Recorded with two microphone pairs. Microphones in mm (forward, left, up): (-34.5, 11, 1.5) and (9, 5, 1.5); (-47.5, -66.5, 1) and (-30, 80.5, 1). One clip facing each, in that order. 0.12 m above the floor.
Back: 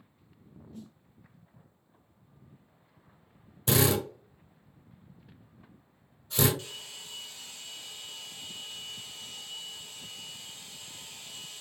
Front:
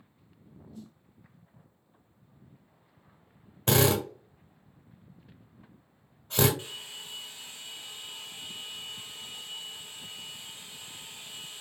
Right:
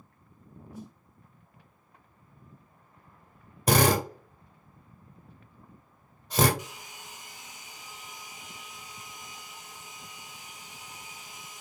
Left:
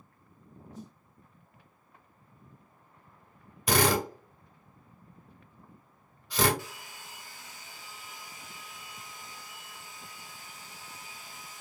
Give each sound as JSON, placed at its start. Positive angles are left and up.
{"t": 0.7, "sound": "a snare drum", "azimuth_deg": -175, "distance_m": 1.4}
{"t": 3.7, "sound": "a drill", "azimuth_deg": -55, "distance_m": 1.2}
{"t": 6.6, "sound": "a hair dryer", "azimuth_deg": -50, "distance_m": 0.5}